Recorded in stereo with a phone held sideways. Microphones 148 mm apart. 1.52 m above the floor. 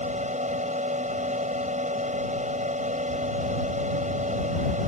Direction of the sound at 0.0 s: 55° right (ahead or behind).